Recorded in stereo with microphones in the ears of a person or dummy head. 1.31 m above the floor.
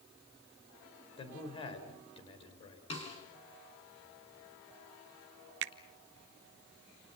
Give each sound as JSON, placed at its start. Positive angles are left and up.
{"t": 1.2, "sound": "a man speaking", "side_deg": 30, "distance_m": 4.5}
{"t": 2.9, "sound": "a snare drum", "side_deg": 30, "distance_m": 5.0}
{"t": 5.6, "sound": "a finger snap", "side_deg": -65, "distance_m": 0.8}